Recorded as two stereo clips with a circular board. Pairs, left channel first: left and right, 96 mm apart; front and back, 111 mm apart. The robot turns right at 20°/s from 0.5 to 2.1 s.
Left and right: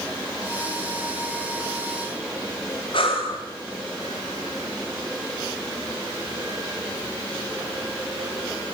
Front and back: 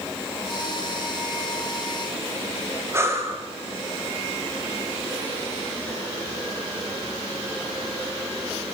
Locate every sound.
2.9 s breathing: 115° left, 7.5 m